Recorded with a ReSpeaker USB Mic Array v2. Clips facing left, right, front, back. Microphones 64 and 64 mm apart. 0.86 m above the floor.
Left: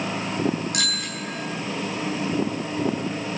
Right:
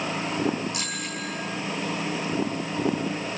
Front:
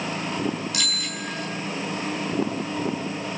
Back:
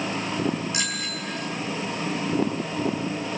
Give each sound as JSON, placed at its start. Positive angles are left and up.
{"t": 0.7, "sound": "a bicycle bell", "azimuth_deg": 115, "distance_m": 8.0}